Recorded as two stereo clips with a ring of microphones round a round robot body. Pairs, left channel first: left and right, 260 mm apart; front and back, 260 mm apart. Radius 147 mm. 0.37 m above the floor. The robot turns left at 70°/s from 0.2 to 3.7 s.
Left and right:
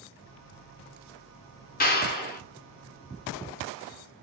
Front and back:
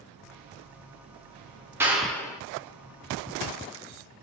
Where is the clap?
105° left, 0.8 m; by 2.4 s 65° left, 0.8 m.